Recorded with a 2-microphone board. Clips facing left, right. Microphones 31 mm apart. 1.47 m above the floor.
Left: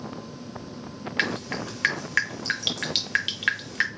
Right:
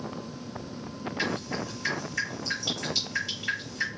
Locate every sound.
1.2 s dripping: 70° left (ahead or behind), 0.7 m